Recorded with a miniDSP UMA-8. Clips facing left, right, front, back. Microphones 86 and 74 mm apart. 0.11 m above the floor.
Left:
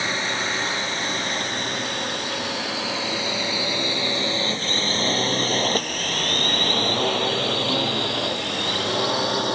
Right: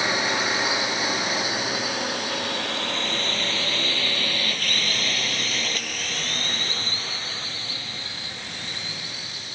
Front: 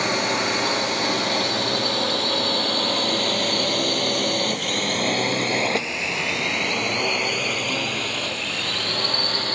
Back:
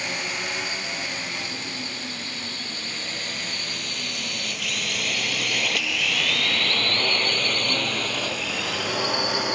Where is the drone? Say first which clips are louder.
Right 2 dB, front 8 dB; 15° right; by 9.6 s 105° left.